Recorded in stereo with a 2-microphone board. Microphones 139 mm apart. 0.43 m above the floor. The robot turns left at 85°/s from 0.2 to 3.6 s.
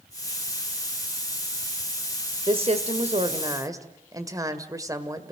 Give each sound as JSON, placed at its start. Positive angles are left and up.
{"t": 2.5, "sound": "a woman speaking", "azimuth_deg": -50, "distance_m": 1.6}